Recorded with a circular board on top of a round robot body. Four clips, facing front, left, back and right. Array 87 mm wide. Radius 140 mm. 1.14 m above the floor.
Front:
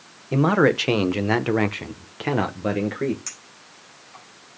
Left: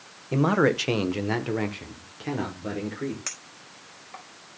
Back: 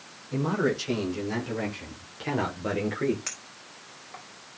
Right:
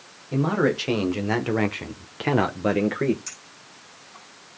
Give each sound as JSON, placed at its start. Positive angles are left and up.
{"t": 0.3, "sound": "a man speaking", "azimuth_deg": 20, "distance_m": 1.6}
{"t": 3.3, "sound": "a clink", "azimuth_deg": 110, "distance_m": 4.0}